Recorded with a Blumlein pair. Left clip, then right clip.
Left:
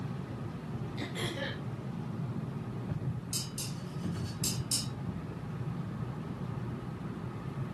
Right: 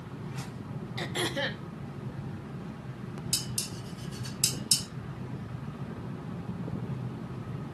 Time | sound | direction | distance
1.0 | throat clearing | 60° right | 2 m
3.3 | dishes clattering | 30° right | 4 m